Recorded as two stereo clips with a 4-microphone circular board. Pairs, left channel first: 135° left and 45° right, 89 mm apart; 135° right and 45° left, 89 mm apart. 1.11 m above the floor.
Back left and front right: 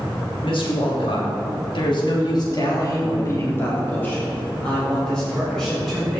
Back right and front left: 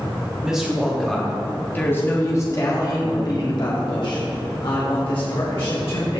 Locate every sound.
0.4 s a woman speaking: 125° left, 3 m; by 6.2 s 135° right, 5.5 m